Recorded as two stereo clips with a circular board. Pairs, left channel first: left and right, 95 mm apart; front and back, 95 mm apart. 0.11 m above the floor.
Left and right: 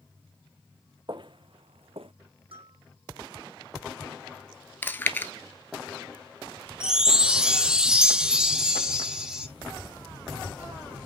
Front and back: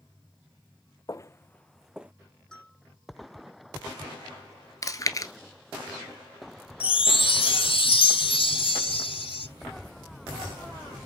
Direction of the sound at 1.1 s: 50° right.